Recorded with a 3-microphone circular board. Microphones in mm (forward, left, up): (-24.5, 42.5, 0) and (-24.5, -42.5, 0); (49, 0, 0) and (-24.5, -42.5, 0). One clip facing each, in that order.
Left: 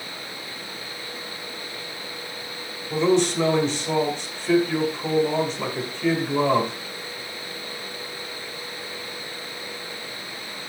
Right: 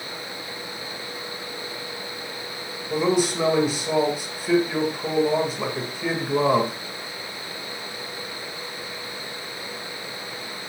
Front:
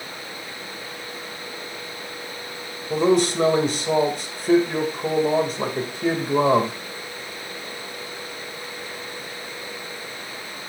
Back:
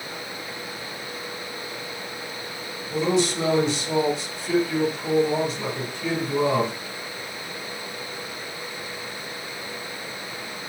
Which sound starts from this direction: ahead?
A man speaking, at 2.9 s.